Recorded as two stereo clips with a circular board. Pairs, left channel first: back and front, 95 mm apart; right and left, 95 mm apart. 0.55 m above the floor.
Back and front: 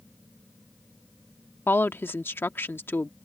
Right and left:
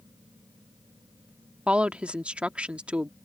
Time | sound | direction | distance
1.7 | a woman speaking | 150° left | ?